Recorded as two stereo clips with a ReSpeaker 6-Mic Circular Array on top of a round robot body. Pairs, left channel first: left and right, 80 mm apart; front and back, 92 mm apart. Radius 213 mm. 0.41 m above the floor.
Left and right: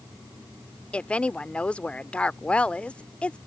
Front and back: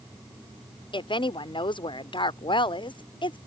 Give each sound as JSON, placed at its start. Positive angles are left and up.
{"t": 0.9, "sound": "a woman speaking", "azimuth_deg": 15}